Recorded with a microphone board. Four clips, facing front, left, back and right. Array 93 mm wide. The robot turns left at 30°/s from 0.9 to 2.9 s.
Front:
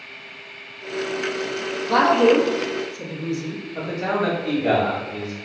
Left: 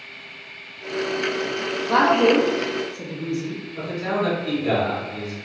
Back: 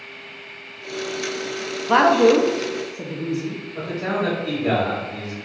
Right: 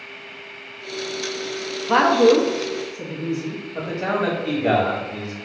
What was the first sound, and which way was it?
A woman speaking, 150° right.